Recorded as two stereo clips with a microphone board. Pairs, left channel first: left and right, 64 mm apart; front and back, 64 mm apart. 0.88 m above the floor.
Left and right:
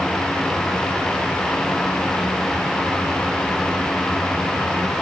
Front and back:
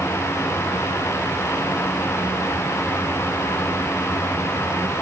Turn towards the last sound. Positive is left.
No sound to turn to.